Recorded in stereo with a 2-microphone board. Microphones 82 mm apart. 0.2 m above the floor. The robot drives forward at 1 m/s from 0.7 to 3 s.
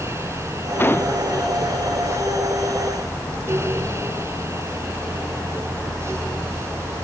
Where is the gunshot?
25° left (ahead or behind); by 1.2 s 30° left (ahead or behind).